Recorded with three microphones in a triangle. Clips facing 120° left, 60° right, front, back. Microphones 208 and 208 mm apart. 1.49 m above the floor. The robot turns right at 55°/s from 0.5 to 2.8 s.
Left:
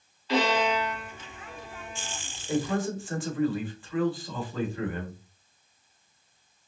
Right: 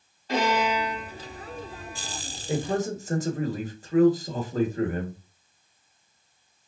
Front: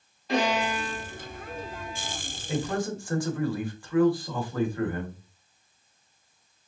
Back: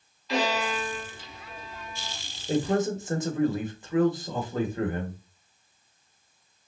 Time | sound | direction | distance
0.3 | a violin | 30° right | 2 m
2.5 | a man speaking | 125° right | 1.3 m